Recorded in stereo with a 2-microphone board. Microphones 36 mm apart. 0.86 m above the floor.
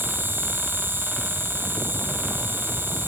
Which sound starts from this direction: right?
An insect, at 0.0 s.